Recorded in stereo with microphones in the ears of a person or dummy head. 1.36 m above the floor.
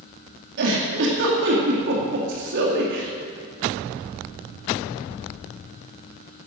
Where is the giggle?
70° right (ahead or behind), 2.5 m.